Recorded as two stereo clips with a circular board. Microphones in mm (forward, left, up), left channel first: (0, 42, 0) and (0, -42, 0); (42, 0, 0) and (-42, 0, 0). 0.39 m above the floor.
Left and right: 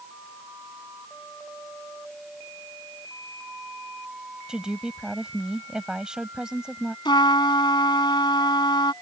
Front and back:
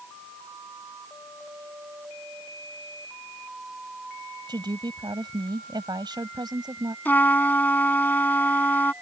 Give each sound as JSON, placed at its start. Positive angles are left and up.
{"t": 4.5, "sound": "a woman speaking", "azimuth_deg": -170}
{"t": 7.0, "sound": "a trumpet", "azimuth_deg": 70}